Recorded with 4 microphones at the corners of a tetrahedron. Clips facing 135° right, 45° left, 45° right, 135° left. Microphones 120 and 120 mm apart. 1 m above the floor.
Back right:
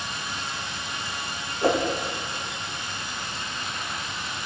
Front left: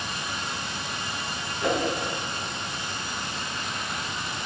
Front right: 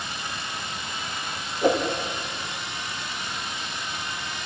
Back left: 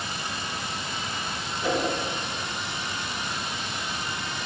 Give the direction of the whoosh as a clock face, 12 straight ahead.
3 o'clock.